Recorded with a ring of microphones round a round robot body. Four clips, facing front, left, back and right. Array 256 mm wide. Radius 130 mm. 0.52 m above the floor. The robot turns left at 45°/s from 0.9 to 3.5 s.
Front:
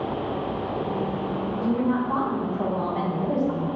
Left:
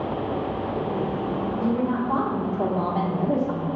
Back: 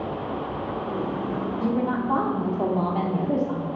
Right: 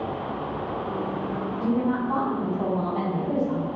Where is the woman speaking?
175° right, 1.4 m; by 3.7 s 100° left, 1.4 m.